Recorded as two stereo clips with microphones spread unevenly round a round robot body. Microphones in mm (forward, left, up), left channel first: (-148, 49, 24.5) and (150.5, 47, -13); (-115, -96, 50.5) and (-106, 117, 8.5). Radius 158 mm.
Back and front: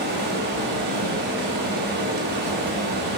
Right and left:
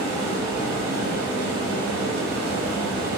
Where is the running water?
60° left, 0.8 m.